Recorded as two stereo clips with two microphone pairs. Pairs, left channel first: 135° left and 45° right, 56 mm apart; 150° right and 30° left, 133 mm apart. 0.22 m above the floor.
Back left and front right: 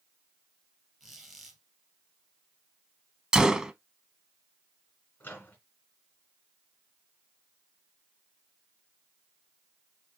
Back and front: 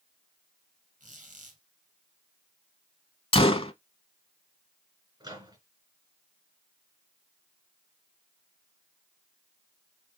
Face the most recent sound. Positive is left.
turn(degrees=80)